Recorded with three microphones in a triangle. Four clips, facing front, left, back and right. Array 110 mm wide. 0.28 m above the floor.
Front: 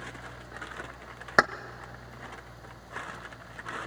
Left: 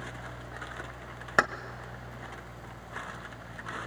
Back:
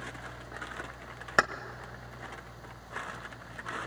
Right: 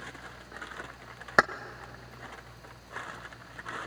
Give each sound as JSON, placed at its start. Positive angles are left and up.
{"t": 1.4, "sound": "keys jangling", "azimuth_deg": -30, "distance_m": 0.6}